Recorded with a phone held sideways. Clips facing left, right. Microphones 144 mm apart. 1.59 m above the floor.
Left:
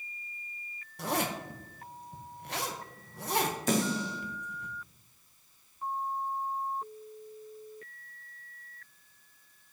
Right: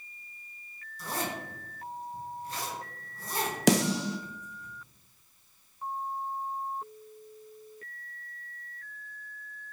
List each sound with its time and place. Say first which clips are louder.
1.0 s a zipper: left 3 dB; 70° left (ahead or behind), 1.2 m
3.7 s a snare drum: right 8 dB; 80° right, 0.8 m